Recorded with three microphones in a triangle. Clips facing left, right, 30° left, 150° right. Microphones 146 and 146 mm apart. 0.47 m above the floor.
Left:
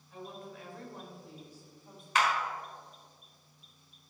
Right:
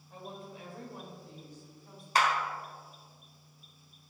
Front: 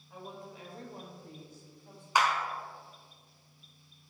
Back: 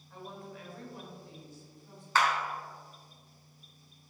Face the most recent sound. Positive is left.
turn(degrees=-45)